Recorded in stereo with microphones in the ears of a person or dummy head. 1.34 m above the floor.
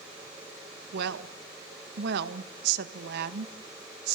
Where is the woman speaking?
65° right (ahead or behind), 1.7 m.